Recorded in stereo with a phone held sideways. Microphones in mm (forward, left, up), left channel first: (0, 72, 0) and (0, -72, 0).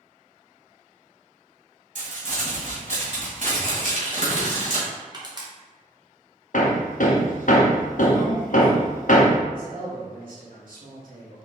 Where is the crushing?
30° right (ahead or behind), 0.9 m.